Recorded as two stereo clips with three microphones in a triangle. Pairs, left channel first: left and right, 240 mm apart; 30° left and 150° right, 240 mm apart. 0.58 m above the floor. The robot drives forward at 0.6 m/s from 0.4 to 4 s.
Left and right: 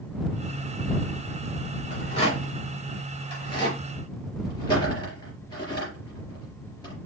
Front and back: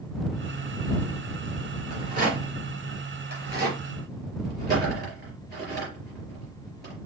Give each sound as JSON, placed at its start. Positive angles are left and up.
{"t": 1.9, "sound": "a rattle", "azimuth_deg": 155, "distance_m": 2.5}